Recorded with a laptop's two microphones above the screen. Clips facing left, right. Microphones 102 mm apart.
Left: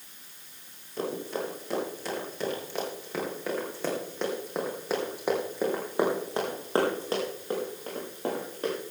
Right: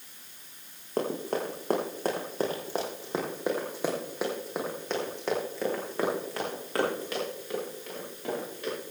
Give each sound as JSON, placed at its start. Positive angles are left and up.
{"t": 1.0, "sound": "running footsteps", "side_deg": -60, "distance_m": 4.5}